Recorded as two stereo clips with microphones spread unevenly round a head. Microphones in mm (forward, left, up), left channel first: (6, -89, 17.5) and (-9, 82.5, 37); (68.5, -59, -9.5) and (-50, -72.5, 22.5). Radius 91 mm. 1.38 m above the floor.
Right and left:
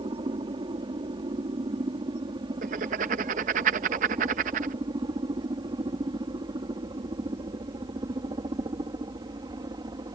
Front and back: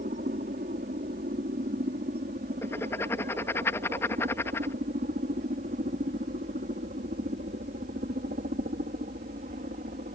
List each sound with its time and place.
0.0 s a helicopter: 160° left
2.6 s writing: 95° left